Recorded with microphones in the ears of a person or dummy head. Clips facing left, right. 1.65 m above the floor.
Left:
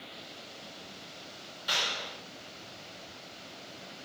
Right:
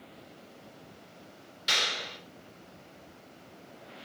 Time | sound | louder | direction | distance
1.7 | a clap | right 1 dB | 25° right (ahead or behind) | 4.5 m